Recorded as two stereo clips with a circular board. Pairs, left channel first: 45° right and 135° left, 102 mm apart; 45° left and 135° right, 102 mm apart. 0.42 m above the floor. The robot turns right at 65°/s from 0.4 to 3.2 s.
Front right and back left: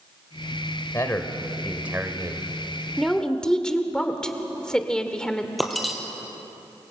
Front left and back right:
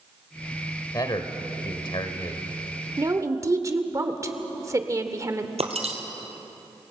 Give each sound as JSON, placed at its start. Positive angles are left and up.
{"t": 0.9, "sound": "a man speaking", "azimuth_deg": 5, "distance_m": 1.5}
{"t": 3.0, "sound": "a woman speaking", "azimuth_deg": -135, "distance_m": 1.3}
{"t": 5.6, "sound": "breaking glass", "azimuth_deg": -135, "distance_m": 2.0}